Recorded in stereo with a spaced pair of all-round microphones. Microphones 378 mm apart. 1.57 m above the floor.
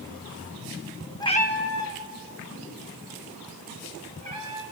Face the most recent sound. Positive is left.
turn(degrees=55)  # may be behind; listen again after turning